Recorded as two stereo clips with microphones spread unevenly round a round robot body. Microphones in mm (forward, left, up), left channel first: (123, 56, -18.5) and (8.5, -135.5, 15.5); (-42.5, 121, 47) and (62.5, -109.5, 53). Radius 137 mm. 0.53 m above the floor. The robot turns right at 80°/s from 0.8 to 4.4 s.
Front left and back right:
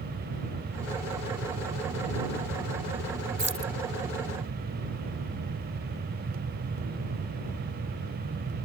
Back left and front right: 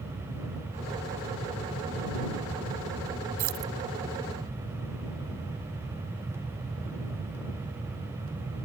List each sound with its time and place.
3.4 s keys jangling: 70° right; by 3.7 s 40° right